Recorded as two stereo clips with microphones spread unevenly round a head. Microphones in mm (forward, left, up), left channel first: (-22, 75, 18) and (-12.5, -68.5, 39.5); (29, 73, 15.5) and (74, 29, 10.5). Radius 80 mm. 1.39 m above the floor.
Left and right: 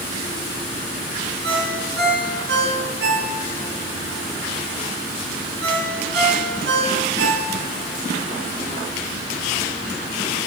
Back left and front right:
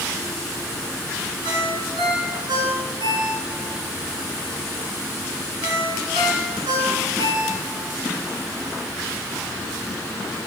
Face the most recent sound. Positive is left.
turn(degrees=-65)